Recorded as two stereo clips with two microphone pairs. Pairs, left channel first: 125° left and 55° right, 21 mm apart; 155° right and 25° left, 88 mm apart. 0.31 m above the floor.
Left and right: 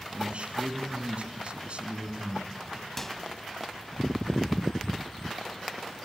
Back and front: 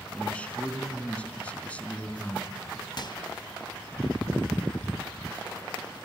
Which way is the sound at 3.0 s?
160° right.